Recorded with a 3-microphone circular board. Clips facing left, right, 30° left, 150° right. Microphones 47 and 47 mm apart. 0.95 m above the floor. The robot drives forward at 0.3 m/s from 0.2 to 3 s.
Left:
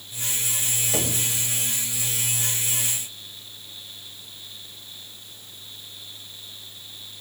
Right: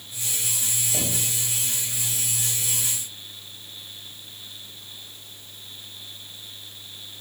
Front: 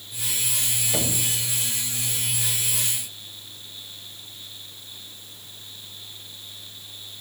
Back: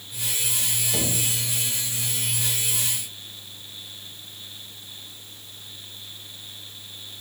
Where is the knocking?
110° left, 2.5 m.